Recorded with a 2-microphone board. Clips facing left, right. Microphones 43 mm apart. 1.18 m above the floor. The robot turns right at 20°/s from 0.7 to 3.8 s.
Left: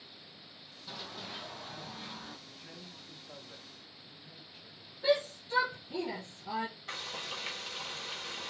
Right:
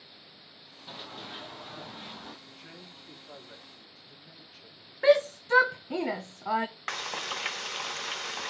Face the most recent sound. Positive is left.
turn(degrees=-70)  # may be behind; listen again after turning